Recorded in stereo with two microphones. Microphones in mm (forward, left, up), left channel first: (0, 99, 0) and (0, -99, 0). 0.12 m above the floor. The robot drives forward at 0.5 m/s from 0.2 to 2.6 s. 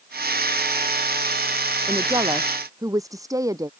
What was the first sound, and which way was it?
A woman speaking, 15° right (ahead or behind).